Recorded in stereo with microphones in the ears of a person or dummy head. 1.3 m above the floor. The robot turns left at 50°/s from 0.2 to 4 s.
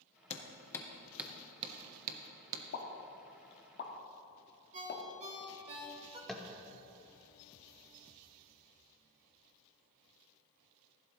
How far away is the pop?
About 1.4 m.